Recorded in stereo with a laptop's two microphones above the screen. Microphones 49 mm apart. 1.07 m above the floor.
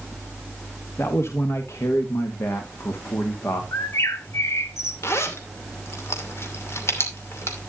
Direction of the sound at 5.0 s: 60° left (ahead or behind).